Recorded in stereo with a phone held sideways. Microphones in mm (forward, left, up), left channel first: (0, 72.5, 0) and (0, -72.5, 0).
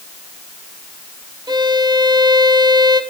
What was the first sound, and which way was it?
A violin, 30° right (ahead or behind).